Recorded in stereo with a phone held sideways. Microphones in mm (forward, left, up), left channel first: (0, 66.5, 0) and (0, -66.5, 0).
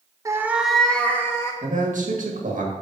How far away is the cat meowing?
About 0.6 m.